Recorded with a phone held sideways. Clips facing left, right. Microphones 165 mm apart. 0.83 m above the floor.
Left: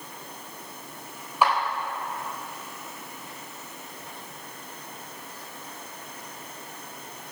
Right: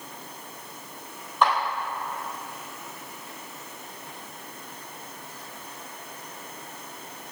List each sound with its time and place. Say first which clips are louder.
1.4 s a clap: even; 10° left (ahead or behind), 3 m